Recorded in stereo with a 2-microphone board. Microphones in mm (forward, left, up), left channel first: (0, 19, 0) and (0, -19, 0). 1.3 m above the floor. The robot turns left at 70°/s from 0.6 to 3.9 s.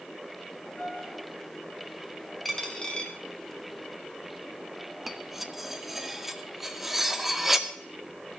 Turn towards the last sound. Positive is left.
turn(degrees=-5)  # may be behind; listen again after turning